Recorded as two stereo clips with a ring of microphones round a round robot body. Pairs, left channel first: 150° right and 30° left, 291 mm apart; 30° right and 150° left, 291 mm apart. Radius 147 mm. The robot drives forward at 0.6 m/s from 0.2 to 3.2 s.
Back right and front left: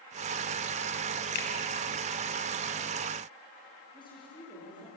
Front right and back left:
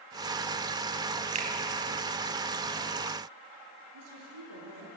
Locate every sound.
1.4 s a finger snap: 145° right, 2 m
3.9 s a woman speaking: 135° left, 7 m